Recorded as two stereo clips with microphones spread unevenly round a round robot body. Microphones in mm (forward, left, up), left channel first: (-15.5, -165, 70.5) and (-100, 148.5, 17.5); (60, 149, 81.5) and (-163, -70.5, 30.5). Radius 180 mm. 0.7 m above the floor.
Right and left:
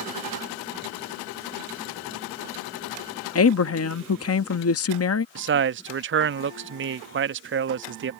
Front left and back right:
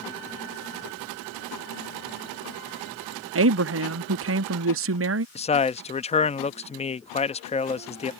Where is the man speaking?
120° left.